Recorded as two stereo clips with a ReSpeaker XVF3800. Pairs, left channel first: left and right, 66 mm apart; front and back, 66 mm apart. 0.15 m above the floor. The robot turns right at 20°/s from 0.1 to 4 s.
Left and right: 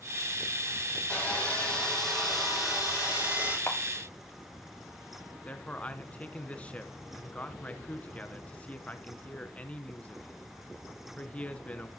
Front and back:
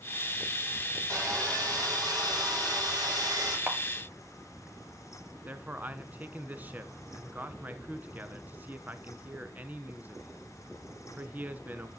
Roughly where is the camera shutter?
Behind left.